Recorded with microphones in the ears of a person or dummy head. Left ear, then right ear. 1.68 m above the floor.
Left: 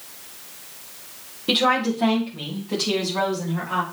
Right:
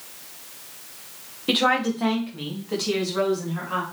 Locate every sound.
1.5 s a woman speaking: 25° right (ahead or behind), 1.7 m; by 3.8 s 10° right (ahead or behind), 4.5 m